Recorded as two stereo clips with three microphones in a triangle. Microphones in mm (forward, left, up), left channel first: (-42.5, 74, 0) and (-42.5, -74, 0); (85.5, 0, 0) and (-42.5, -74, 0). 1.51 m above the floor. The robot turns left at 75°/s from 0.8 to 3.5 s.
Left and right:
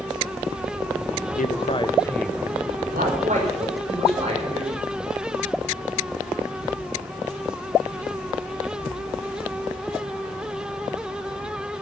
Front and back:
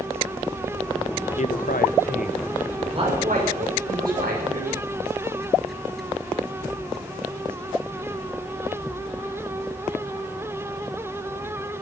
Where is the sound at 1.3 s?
75° left, 1.2 m; by 2.5 s 10° right, 1.2 m.